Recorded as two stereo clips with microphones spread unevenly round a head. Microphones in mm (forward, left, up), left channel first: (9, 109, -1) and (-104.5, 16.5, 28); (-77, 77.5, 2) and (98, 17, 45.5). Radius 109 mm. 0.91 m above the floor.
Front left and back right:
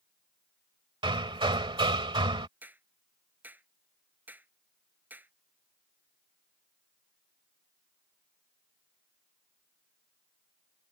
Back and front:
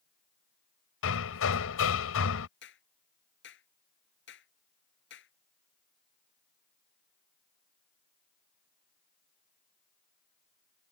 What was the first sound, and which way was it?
Hammering, 165° left.